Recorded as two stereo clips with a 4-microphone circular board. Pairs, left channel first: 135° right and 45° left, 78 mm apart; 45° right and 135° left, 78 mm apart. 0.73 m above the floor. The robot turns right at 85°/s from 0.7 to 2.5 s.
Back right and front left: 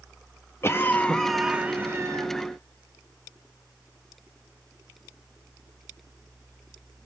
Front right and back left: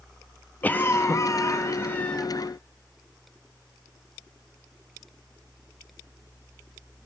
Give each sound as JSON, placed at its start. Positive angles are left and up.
{"t": 0.6, "sound": "a cough", "azimuth_deg": -100, "distance_m": 0.6}